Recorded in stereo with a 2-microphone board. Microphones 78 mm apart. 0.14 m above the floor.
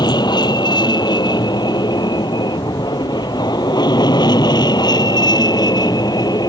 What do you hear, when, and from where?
0.0 s an aircraft: 70° left (ahead or behind); by 6.5 s 60° left (ahead or behind)